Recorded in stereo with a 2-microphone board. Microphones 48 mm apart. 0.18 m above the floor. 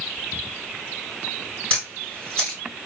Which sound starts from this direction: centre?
A camera shutter, at 1.7 s.